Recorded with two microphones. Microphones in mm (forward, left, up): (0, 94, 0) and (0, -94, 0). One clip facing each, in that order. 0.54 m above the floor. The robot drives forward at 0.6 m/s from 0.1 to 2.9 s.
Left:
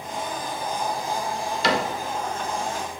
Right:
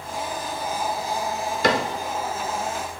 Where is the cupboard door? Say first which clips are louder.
Right 2 dB; 50° right (ahead or behind), 0.6 m; by 1.9 s 45° right (ahead or behind), 0.7 m.